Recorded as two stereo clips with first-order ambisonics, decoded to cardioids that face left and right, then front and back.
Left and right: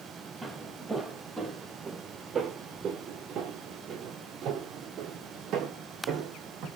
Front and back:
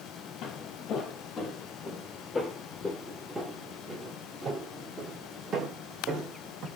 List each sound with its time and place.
0.4 s footsteps: 5° right, 2 m; by 6.7 s 135° right, 3 m